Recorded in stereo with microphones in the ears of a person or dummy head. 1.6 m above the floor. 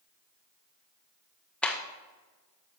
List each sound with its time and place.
1.6 s a clap: 10° left (ahead or behind), 0.8 m